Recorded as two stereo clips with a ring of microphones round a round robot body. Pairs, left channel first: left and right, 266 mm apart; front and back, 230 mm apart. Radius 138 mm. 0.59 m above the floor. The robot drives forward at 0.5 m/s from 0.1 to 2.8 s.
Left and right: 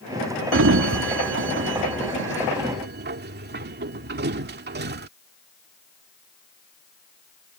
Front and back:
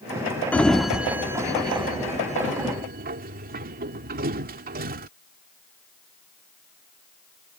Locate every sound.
0.5 s a sliding door: 80° right; by 5.1 s 135° right